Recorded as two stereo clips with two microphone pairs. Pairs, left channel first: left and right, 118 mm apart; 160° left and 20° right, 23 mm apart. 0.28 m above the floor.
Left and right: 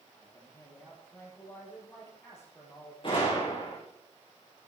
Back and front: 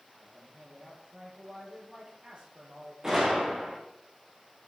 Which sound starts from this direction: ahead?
A man speaking, at 0.1 s.